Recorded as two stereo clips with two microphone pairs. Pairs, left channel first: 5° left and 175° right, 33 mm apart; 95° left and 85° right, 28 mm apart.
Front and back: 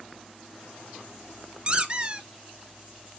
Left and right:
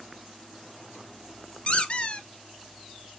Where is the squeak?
125° left, 0.6 m.